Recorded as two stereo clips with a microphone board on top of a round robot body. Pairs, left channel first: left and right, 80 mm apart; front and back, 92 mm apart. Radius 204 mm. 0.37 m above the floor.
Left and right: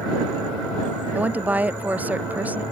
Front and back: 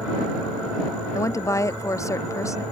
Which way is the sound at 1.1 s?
30° right.